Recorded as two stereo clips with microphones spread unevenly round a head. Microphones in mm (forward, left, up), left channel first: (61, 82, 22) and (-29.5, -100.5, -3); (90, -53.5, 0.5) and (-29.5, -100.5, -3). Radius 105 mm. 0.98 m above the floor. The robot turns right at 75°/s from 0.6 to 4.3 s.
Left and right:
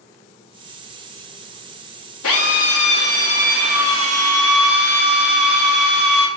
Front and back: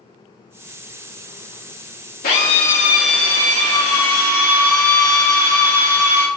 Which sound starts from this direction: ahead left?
A drill, at 2.2 s.